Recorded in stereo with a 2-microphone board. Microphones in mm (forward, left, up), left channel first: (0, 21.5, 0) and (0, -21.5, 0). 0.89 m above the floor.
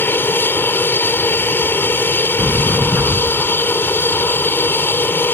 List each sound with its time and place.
0.0 s an aircraft: 55° left (ahead or behind)
2.4 s a sliding door: 40° right (ahead or behind)